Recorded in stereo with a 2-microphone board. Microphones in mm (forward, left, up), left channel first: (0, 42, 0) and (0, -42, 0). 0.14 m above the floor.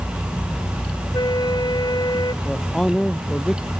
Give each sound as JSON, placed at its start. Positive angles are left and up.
{"t": 1.1, "sound": "a flute", "side_deg": 55}
{"t": 2.4, "sound": "a man speaking", "side_deg": 5}